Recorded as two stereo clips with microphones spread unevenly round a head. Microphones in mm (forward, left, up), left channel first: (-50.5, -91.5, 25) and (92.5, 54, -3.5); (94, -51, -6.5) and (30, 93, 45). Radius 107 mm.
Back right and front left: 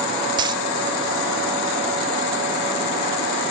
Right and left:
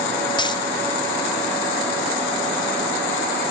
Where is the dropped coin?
5° right, 1.0 m.